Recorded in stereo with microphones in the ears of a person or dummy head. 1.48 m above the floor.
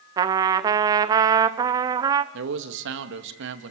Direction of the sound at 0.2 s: 20° right (ahead or behind).